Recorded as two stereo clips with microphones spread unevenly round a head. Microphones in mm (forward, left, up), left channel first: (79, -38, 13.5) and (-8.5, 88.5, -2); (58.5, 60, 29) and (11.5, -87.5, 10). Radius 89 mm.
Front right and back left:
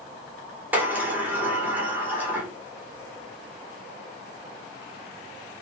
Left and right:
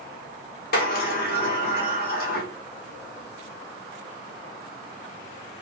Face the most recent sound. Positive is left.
turn(degrees=45)